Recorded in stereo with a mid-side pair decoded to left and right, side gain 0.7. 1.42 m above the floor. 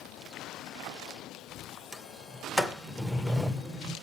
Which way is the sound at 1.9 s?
Straight ahead.